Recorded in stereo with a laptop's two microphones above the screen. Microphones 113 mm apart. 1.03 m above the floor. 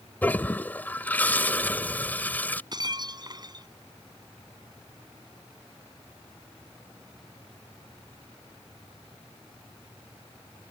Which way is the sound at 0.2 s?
15° left (ahead or behind).